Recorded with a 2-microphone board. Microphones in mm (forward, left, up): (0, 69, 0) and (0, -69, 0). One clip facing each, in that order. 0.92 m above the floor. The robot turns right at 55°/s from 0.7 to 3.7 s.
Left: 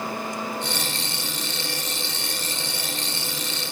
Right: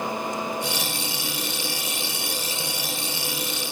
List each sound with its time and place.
Only background noise.